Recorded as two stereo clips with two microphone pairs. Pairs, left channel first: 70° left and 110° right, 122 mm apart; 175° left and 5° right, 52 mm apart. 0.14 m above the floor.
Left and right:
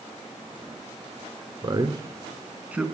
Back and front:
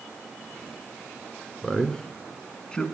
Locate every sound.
1.6 s a man speaking: 120° right, 1.5 m; by 2.9 s 170° right, 1.2 m